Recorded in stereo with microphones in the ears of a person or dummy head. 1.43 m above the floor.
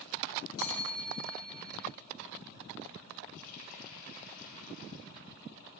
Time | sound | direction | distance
0.6 | a bell | 25° left (ahead or behind) | 4.5 m
3.4 | a running tap | 45° left (ahead or behind) | 4 m